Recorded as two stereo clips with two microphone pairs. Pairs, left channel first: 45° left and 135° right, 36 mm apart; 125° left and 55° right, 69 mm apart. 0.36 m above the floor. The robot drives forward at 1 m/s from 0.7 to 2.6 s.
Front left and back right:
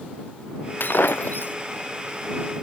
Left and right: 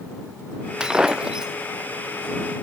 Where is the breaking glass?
20° left.